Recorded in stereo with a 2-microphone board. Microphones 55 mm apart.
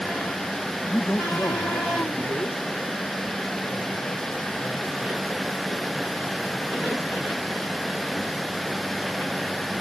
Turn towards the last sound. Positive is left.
turn(degrees=75)  # may be behind; listen again after turning